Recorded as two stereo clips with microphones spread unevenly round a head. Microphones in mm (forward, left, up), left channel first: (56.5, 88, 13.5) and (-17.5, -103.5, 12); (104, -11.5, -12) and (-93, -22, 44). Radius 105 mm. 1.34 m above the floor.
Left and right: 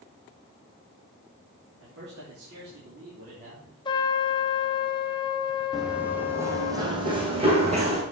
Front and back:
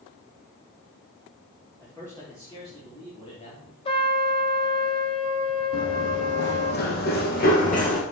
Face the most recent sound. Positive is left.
turn(degrees=-55)